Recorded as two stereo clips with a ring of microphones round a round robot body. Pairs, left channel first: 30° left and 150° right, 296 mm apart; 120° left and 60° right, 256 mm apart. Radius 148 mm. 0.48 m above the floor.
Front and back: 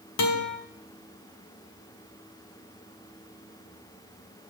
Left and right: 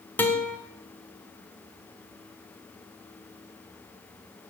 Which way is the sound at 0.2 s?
40° left.